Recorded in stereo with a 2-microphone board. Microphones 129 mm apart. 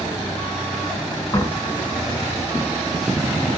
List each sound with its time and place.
1.3 s a door slam: 25° left (ahead or behind), 3 m